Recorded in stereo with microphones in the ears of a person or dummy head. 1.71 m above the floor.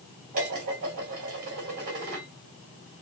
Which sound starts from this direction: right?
Dishes clattering, at 0.3 s.